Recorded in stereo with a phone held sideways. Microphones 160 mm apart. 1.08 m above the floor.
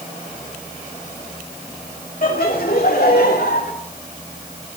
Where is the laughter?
60° left (ahead or behind), 2 m; by 3.7 s 85° left, 4 m.